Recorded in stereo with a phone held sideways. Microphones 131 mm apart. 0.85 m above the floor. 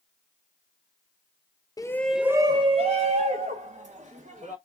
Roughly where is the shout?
Left.